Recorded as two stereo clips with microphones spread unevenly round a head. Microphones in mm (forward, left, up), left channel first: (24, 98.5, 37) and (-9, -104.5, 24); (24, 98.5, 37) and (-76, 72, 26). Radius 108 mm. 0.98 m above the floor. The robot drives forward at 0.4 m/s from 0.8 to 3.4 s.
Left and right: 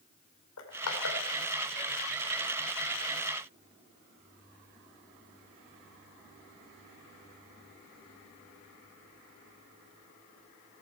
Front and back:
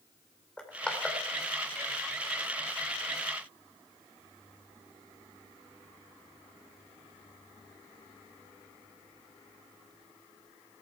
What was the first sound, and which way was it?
Crushing, 95° left.